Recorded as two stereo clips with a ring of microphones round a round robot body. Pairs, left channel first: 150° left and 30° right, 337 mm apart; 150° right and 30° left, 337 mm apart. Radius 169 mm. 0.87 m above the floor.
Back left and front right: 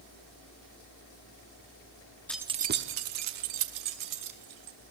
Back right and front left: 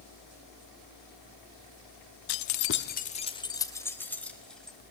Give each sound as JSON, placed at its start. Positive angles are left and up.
{"t": 2.3, "sound": "keys jangling", "azimuth_deg": -125, "distance_m": 0.8}